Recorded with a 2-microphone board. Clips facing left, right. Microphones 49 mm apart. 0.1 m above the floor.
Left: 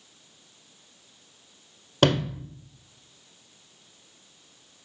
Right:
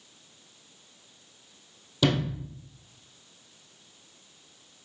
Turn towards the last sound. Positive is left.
turn(degrees=55)  # may be behind; listen again after turning